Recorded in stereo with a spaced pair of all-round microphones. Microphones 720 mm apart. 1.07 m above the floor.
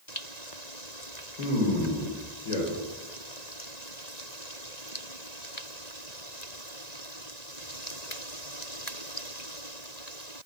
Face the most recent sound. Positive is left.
turn(degrees=60)  # may be behind; listen again after turning